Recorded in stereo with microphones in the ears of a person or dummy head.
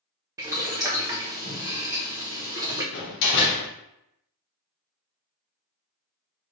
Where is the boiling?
20° right (ahead or behind), 0.7 m.